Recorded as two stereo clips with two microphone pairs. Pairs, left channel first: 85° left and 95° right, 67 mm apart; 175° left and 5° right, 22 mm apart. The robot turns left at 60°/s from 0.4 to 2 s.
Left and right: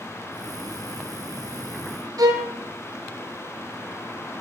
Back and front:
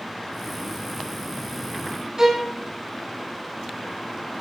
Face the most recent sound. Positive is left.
turn(degrees=-70)